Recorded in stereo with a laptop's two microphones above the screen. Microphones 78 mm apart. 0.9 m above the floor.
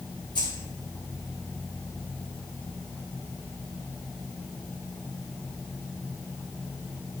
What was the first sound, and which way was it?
Keys jangling, 75° left (ahead or behind).